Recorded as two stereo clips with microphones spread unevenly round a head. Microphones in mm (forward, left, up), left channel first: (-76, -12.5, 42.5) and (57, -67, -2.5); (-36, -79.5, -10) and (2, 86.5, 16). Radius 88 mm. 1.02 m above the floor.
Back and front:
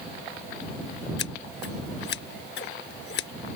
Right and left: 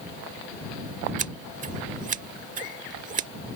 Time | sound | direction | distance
1.2 | scissors | 125° left | ?